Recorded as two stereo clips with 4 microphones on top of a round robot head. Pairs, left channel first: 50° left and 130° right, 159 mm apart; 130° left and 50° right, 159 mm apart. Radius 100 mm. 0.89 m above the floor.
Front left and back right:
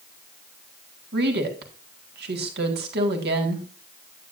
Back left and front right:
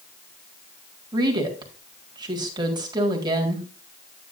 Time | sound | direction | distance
1.1 | a woman speaking | 115° right | 1.8 m